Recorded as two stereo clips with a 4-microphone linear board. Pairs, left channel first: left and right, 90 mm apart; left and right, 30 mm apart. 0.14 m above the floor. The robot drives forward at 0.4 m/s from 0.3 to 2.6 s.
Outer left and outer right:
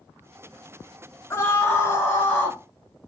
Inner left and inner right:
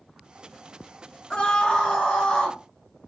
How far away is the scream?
About 1.2 m.